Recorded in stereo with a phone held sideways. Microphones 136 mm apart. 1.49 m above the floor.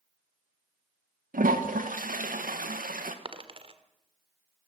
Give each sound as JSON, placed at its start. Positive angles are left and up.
{"t": 1.3, "sound": "a toilet flushing", "side_deg": -90, "distance_m": 1.6}
{"t": 3.2, "sound": "a dropped coin", "side_deg": -45, "distance_m": 1.7}